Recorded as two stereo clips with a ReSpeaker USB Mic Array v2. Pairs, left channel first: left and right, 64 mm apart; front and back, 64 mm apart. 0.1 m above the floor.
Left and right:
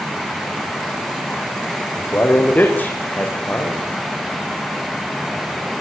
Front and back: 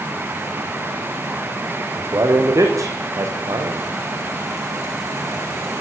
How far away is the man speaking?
About 8 m.